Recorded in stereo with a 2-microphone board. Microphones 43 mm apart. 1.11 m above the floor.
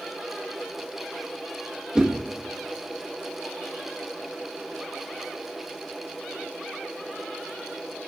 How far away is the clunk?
I don't hear a clunk.